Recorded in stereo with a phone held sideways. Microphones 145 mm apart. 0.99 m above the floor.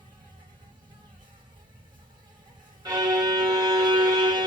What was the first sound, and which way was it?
An insect, 35° right (ahead or behind).